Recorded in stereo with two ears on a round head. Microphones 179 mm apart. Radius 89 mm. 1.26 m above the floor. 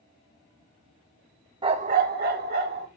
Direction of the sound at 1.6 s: 25° right (ahead or behind).